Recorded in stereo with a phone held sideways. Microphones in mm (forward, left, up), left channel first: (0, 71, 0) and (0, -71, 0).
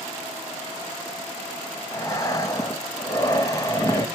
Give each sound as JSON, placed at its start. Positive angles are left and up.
{"t": 1.9, "sound": "breathing", "side_deg": 25, "distance_m": 1.1}